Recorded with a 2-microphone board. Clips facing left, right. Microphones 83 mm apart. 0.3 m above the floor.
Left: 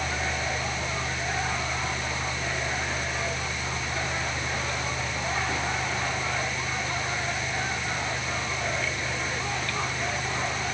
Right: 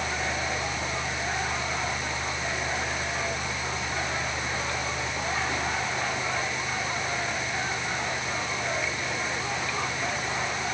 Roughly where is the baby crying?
I don't hear a baby crying.